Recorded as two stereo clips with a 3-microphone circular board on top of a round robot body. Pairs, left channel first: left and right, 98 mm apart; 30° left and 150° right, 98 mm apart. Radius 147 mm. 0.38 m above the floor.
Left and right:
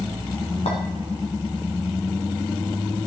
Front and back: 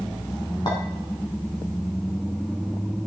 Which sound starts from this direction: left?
A clink, at 0.7 s.